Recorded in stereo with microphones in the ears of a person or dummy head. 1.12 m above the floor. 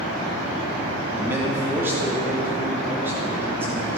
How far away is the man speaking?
About 2.5 m.